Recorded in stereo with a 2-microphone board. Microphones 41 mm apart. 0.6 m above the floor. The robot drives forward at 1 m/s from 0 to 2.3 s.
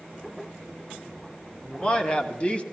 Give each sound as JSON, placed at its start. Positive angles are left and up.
{"t": 1.6, "sound": "a man speaking", "side_deg": 20, "distance_m": 1.8}